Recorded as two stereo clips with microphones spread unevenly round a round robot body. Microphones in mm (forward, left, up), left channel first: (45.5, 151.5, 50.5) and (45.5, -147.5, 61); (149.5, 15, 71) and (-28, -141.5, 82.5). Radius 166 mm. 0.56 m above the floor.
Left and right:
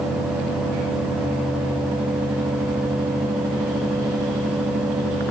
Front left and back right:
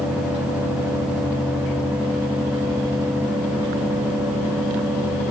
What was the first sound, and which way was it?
Only background noise.